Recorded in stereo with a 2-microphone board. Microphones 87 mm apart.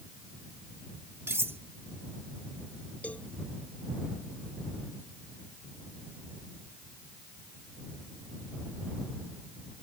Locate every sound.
1.3 s cutlery clinking: 25° right (ahead or behind)
3.0 s a cowbell: 15° left (ahead or behind)